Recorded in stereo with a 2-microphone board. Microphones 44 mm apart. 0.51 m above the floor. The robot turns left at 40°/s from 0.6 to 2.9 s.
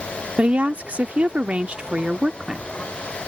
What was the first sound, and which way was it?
A woman speaking, 80° right.